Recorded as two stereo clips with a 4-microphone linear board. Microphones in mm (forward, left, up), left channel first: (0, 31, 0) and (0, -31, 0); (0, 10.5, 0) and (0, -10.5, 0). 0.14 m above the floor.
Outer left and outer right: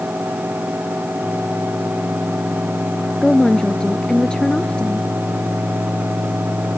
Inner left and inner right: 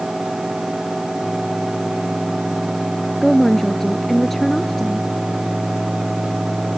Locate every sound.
3.2 s a woman speaking: 15° left (ahead or behind)